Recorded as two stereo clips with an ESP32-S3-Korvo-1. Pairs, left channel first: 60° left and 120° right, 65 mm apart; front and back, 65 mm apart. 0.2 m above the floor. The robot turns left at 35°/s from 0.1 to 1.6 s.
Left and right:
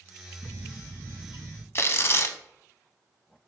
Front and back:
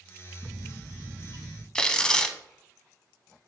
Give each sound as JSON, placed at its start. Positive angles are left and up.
{"t": 0.4, "sound": "a bird", "azimuth_deg": -120, "distance_m": 0.6}
{"t": 1.8, "sound": "tearing paper", "azimuth_deg": 70, "distance_m": 0.6}